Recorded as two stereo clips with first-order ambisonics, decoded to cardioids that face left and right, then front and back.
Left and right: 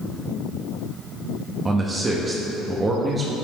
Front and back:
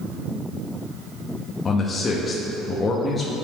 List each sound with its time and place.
1.6 s a man speaking: 40° right, 0.6 m